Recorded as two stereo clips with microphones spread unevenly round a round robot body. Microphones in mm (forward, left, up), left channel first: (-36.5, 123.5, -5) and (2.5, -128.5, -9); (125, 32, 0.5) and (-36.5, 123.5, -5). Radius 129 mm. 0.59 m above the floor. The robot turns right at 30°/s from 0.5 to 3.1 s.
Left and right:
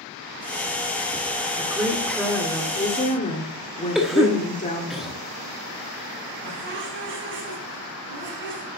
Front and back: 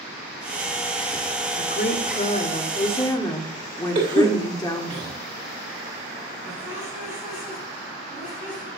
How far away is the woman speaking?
About 1.5 m.